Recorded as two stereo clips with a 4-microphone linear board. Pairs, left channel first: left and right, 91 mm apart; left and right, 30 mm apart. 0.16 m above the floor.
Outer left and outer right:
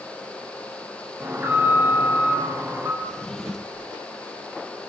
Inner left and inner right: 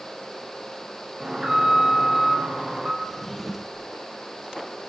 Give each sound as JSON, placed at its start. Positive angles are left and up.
{"t": 1.2, "sound": "an alarm", "side_deg": -25, "distance_m": 5.0}
{"t": 3.0, "sound": "a drawer", "side_deg": 5, "distance_m": 1.0}